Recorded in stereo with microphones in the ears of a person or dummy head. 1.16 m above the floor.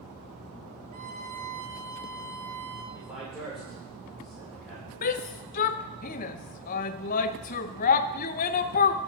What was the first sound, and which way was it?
A violin, 45° right (ahead or behind).